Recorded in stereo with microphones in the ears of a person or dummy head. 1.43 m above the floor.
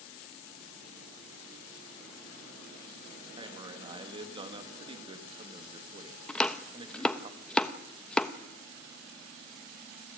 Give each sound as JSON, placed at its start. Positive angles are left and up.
{"t": 3.4, "sound": "a man speaking", "side_deg": -25, "distance_m": 2.5}
{"t": 6.3, "sound": "chopping", "side_deg": 0, "distance_m": 1.0}